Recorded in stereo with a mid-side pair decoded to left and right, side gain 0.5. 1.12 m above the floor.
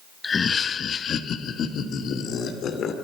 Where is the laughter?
30° left, 0.8 m; by 2.9 s 60° left, 3 m.